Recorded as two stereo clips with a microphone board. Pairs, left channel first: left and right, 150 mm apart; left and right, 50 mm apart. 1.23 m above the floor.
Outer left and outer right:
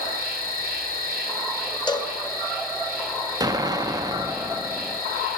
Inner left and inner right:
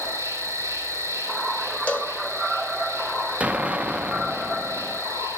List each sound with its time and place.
0.0 s an insect: 70° right (ahead or behind), 5.5 m
1.9 s a cowbell: 30° left (ahead or behind), 2 m
3.4 s an explosion: 25° right (ahead or behind), 0.7 m